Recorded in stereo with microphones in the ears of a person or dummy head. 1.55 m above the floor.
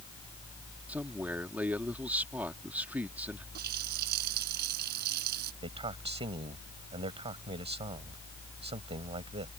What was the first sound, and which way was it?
A man speaking, 10° right (ahead or behind).